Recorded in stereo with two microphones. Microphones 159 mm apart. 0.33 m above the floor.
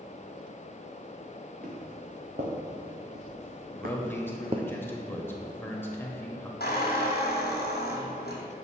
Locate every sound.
1.6 s footsteps: 70° right (ahead or behind), 2.5 m; by 4.7 s 30° right (ahead or behind), 0.8 m
3.8 s a man speaking: 15° left (ahead or behind), 1.0 m
6.6 s a squeak: 75° left (ahead or behind), 2 m